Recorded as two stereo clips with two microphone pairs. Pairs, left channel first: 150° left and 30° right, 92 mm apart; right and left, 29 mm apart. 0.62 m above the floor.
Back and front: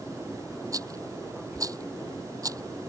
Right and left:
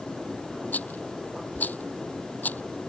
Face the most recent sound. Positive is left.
turn(degrees=-80)